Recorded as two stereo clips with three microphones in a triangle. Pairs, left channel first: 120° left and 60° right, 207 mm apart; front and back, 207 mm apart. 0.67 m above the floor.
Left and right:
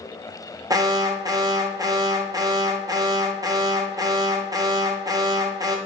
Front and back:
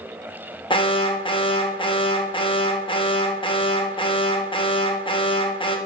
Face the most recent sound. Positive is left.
turn(degrees=-15)